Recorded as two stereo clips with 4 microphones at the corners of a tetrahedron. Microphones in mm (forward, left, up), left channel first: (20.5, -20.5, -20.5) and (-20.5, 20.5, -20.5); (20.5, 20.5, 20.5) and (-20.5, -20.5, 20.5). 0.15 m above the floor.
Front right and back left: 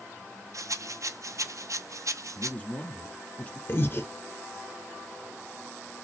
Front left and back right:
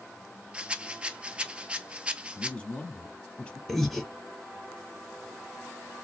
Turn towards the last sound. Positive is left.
turn(degrees=-40)